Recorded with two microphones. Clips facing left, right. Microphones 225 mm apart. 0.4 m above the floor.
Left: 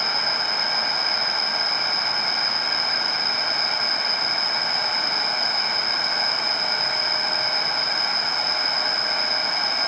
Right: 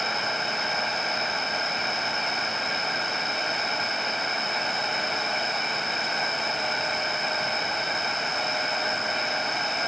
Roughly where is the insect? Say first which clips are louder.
Right 1 dB; centre.